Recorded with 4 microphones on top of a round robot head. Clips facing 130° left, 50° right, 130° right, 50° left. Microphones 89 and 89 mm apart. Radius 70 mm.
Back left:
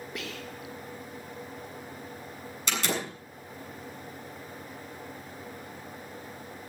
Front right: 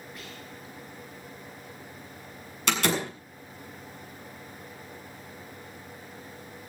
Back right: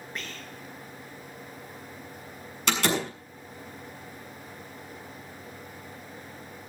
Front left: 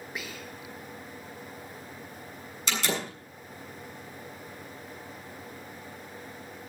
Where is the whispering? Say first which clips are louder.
Back left 5 dB, even; 130° left, 1.3 m.